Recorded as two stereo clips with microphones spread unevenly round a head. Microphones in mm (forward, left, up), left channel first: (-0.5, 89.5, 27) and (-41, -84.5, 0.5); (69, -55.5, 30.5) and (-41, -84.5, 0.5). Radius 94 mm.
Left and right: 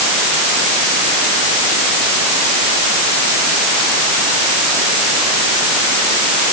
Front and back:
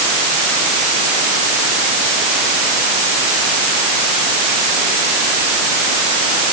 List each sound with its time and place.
Only background noise.